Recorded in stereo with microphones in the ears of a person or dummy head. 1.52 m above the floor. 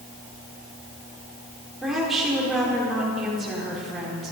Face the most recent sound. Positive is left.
turn(degrees=0)  # may be behind; listen again after turning